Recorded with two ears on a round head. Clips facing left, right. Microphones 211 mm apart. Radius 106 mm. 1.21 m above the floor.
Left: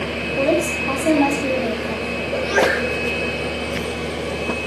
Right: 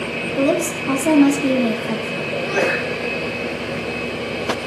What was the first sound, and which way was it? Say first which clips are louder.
A woman speaking: right 1 dB; 10° right (ahead or behind).